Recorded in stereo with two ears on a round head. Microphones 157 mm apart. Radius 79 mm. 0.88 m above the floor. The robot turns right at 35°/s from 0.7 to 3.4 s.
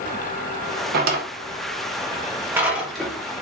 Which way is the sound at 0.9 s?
55° right (ahead or behind).